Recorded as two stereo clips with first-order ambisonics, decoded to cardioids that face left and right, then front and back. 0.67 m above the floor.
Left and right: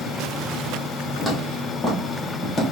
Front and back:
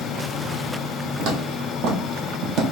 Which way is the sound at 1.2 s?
175° left.